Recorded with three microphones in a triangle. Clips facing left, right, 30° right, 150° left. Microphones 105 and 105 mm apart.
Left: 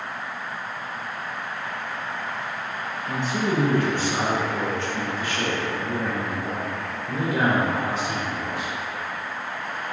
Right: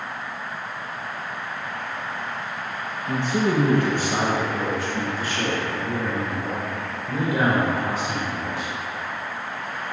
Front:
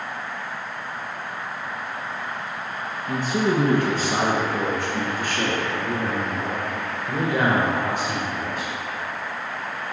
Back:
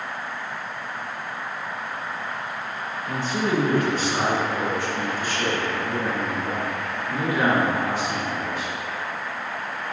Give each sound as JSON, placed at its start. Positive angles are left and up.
{"t": 3.1, "sound": "a man speaking", "azimuth_deg": -100, "distance_m": 1.6}